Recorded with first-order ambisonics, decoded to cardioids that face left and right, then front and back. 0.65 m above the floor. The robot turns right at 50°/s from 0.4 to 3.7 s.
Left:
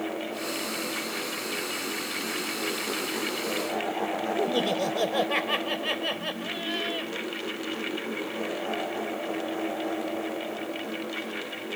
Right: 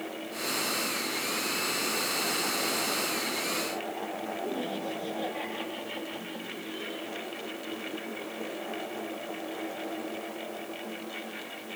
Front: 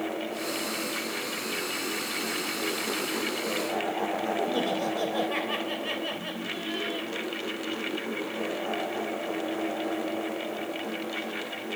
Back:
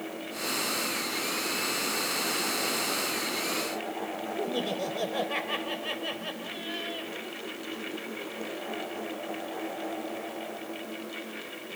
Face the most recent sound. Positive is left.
turn(degrees=90)